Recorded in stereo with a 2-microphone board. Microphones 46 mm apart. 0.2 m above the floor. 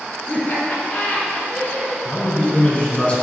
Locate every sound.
0.3 s laughter: 40° left (ahead or behind), 1.5 m; by 1.9 s 35° left (ahead or behind), 2.5 m
2.0 s a man speaking: 35° left (ahead or behind), 1.4 m